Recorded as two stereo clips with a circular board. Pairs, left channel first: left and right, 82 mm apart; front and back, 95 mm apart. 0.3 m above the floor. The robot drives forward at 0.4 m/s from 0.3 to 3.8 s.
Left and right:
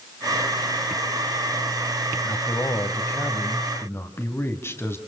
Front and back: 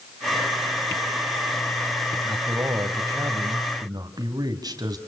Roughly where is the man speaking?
Behind left.